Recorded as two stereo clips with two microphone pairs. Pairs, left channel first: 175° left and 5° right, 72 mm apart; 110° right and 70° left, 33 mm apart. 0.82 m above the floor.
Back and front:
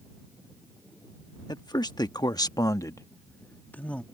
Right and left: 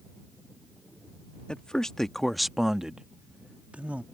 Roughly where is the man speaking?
Behind.